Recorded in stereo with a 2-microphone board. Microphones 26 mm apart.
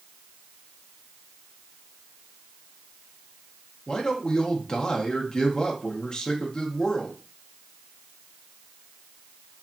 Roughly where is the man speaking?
Left.